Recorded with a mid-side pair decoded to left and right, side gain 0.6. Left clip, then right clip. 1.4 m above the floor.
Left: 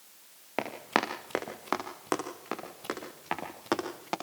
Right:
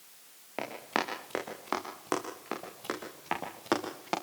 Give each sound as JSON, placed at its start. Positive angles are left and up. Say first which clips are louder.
{"t": 0.6, "sound": "running footsteps", "louder": "left 3 dB", "azimuth_deg": 30, "distance_m": 6.5}